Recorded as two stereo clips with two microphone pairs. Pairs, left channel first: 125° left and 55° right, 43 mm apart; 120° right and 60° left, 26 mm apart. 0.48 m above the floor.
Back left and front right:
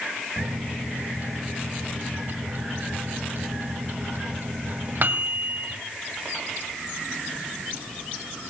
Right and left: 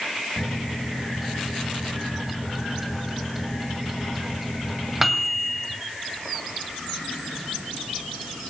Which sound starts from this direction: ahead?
A microwave, at 0.4 s.